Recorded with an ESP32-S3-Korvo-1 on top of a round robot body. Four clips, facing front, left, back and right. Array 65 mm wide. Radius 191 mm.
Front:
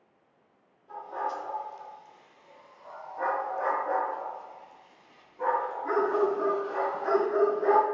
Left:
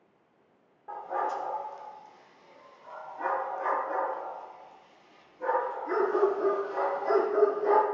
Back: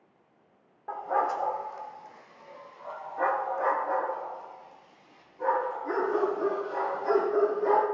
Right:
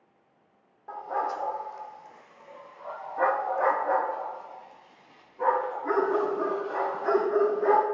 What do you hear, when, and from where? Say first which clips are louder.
0.9 s a dog barking: right 1 dB, back 6 dB; 175° right, 1.3 m; by 7.8 s 60° right, 3 m